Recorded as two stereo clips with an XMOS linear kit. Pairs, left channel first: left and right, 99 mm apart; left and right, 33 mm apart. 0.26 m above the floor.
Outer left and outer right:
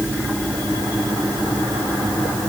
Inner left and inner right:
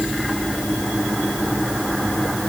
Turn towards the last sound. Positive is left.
No sound to turn to.